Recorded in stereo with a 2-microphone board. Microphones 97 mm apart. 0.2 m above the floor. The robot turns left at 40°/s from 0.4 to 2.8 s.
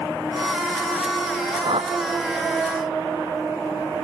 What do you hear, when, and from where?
1.6 s a whoosh: 80° right; by 2.0 s 75° right (ahead or behind)